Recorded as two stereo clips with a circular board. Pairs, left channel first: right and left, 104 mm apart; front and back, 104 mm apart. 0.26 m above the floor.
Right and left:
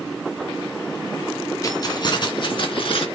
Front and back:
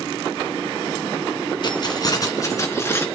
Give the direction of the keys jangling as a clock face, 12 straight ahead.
1 o'clock.